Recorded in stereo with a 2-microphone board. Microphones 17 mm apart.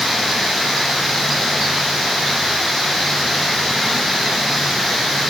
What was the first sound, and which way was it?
Only background noise.